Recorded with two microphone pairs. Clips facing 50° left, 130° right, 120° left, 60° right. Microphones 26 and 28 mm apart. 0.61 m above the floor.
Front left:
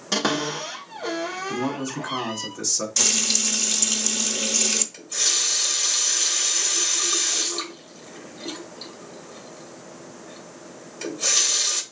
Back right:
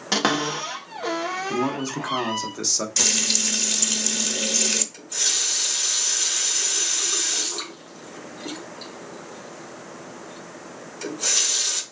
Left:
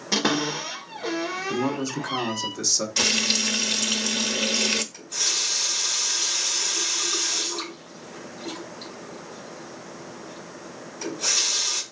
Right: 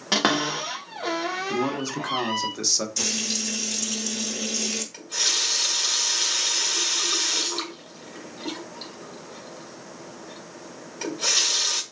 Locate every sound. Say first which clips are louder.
0.1 s a cupboard door: back right 2 dB, right 1 dB; 70° right, 1.4 m
1.5 s a man speaking: back right 2 dB, left 2 dB; 115° right, 1.0 m
3.0 s frying: even, left 6 dB; 155° left, 0.5 m
4.9 s a running tap: front left 1 dB, right 2 dB; 25° right, 1.5 m